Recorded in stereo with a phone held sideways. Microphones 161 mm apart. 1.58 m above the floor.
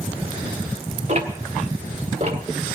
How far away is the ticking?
About 1.7 m.